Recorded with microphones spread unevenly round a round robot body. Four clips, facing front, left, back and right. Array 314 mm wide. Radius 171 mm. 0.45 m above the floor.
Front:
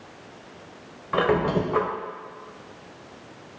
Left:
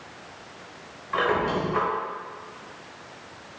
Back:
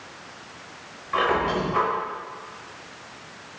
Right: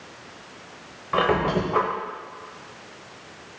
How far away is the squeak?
About 1.4 m.